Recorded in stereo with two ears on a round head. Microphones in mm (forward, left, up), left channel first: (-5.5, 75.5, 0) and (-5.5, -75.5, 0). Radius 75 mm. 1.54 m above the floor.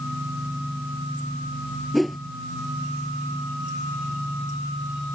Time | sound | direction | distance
1.9 | a whoosh | centre (ahead or behind) | ?